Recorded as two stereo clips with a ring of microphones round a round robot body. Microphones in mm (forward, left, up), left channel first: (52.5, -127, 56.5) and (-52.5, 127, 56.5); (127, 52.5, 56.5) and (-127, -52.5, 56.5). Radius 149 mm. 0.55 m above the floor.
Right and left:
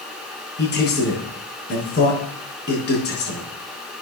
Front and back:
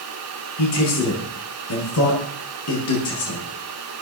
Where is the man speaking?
10° right, 6 m.